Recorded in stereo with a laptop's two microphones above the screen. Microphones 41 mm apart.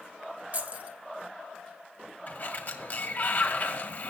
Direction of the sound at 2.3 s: 40° left (ahead or behind).